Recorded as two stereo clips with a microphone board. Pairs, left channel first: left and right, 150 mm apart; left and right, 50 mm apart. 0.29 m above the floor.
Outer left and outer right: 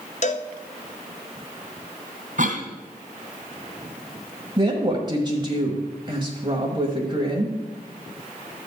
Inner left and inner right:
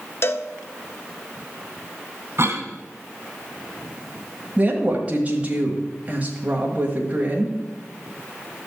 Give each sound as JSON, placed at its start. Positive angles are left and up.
{"t": 0.2, "sound": "a cowbell", "side_deg": 55, "distance_m": 0.8}
{"t": 2.4, "sound": "a cough", "side_deg": -60, "distance_m": 2.5}
{"t": 4.6, "sound": "a woman speaking", "side_deg": -30, "distance_m": 1.5}